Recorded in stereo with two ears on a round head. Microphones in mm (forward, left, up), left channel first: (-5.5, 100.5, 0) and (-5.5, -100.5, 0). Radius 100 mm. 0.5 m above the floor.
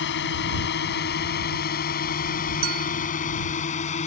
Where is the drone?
55° left (ahead or behind); by 4.1 s 30° left (ahead or behind).